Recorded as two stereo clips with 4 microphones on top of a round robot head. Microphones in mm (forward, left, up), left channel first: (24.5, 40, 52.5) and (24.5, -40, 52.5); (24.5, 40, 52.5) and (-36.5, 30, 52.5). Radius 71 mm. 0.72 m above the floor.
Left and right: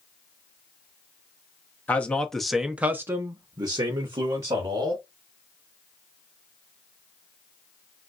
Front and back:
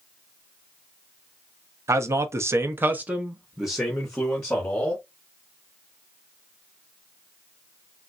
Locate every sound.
1.9 s a man speaking: 160° left, 0.8 m; by 5.0 s 65° right, 1.3 m